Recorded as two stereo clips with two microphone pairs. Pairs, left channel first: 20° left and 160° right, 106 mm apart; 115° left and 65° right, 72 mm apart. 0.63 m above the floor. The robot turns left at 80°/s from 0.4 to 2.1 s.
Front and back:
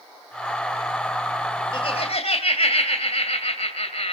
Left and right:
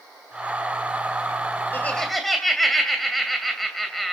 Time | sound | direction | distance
1.7 | laughter | 55° left | 2.5 m